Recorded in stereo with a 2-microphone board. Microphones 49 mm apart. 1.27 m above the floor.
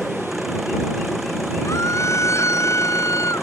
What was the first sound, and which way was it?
An engine running, 5° right (ahead or behind).